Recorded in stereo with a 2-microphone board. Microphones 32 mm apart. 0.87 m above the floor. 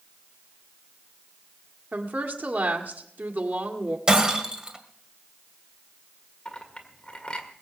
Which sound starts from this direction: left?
A clink, at 6.5 s.